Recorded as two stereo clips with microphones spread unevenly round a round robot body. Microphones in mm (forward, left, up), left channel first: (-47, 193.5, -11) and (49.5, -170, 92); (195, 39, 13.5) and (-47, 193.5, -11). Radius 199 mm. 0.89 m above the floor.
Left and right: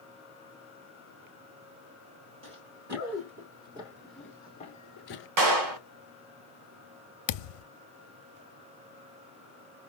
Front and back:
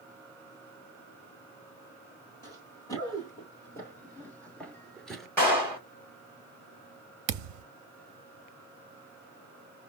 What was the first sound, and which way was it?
Running footsteps, 105° right.